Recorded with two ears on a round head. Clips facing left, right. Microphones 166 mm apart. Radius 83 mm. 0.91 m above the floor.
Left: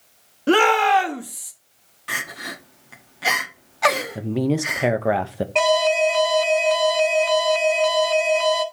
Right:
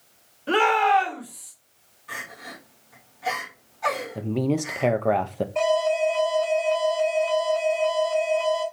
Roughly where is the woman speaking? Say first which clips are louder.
Left 2 dB; centre.